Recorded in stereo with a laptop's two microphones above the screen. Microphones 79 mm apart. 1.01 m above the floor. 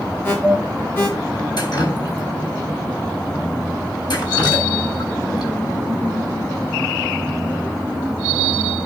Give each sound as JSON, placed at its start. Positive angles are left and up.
{"t": 0.2, "sound": "an alarm", "side_deg": 25, "distance_m": 1.8}
{"t": 1.6, "sound": "dripping", "side_deg": 60, "distance_m": 3.5}